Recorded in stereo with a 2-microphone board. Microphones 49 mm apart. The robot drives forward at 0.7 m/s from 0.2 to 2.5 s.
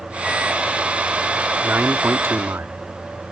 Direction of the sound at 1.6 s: 45° right (ahead or behind).